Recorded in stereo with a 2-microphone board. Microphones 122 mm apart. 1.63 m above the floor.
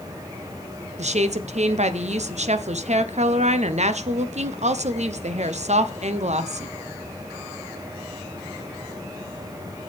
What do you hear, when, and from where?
1.0 s a woman speaking: 65° right (ahead or behind), 0.9 m